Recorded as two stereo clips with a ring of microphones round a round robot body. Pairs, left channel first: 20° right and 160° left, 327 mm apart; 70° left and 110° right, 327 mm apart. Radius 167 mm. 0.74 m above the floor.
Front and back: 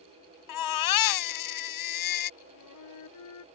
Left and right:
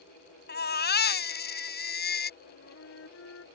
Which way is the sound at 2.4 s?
15° left.